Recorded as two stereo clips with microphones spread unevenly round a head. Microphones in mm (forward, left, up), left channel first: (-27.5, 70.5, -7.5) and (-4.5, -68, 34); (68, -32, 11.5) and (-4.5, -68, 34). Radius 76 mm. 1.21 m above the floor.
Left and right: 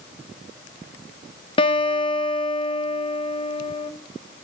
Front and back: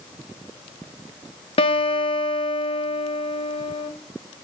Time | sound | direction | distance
1.6 | a guitar | 40° left | 1.1 m